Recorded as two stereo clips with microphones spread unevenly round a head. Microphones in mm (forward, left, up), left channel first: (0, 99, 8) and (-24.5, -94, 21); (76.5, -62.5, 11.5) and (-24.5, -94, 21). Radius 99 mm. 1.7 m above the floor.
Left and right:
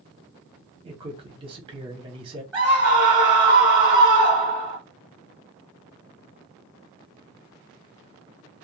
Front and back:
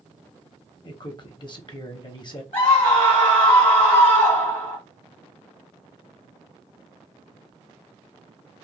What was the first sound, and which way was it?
A man speaking, 30° right.